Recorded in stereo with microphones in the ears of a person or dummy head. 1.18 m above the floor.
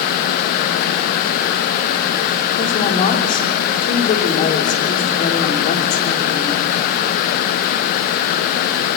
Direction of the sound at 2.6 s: 40° left (ahead or behind).